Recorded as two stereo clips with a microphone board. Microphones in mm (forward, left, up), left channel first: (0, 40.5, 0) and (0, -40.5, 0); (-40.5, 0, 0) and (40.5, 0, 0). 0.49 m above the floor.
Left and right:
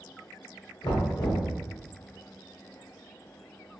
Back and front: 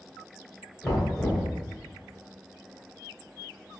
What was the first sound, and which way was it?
Knocking, 95° left.